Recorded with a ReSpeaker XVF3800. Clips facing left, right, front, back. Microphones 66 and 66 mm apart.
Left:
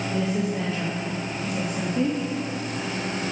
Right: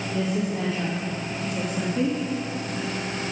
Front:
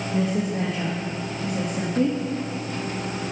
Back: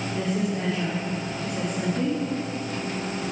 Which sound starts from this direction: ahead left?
A woman speaking, at 0.1 s.